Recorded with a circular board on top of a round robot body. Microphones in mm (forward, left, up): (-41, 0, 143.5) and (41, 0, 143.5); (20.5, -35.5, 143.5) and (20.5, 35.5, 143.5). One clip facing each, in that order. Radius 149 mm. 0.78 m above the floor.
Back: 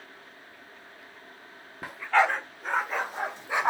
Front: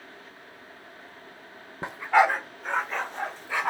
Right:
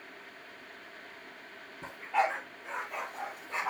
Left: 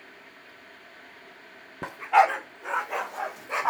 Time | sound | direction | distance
1.8 | a dog barking | 60° left | 0.9 m